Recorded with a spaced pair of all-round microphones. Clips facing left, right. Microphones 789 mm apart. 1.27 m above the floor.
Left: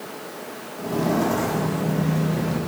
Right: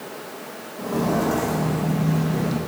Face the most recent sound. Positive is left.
turn(degrees=10)  # may be behind; listen again after turning